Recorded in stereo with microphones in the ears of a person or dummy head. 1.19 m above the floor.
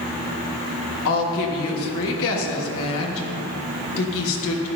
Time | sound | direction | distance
1.1 | a woman speaking | 70° left (ahead or behind) | 1.6 m